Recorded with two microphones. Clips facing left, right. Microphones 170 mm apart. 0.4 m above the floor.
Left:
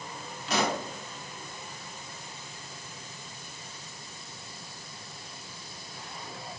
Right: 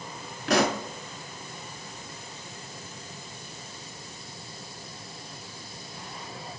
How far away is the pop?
About 0.8 m.